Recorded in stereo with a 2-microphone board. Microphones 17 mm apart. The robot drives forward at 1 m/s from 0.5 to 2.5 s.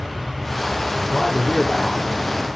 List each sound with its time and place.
0.9 s a man speaking: 25° left (ahead or behind), 8.5 m